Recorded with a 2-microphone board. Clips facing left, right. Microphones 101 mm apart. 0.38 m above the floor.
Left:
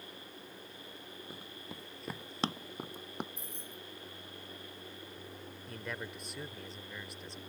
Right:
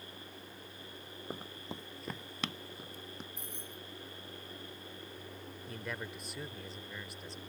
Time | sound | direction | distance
1.3 | running footsteps | 50° right (ahead or behind) | ?
3.4 | keys jangling | 65° right (ahead or behind) | ?
5.7 | a man speaking | centre (ahead or behind) | ?